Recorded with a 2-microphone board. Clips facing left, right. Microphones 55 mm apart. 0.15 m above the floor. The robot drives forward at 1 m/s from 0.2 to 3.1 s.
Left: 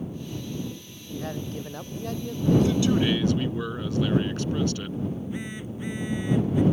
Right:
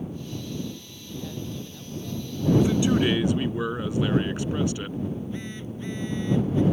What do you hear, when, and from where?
1.1 s a man speaking: 45° left (ahead or behind); by 2.9 s 55° left (ahead or behind)
2.6 s a man speaking: 20° right (ahead or behind)
5.1 s a phone buzzing: 15° left (ahead or behind)